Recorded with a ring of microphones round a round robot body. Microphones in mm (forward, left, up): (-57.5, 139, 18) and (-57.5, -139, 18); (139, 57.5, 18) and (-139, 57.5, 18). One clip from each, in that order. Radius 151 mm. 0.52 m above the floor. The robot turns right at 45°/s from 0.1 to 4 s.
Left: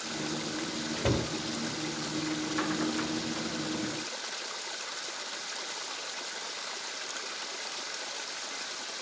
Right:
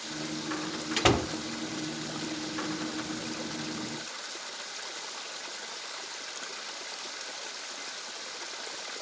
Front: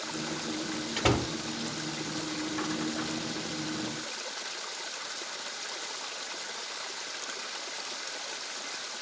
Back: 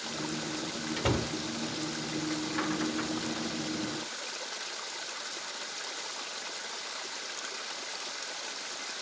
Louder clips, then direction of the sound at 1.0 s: Right 7 dB, front 4 dB; 75° right.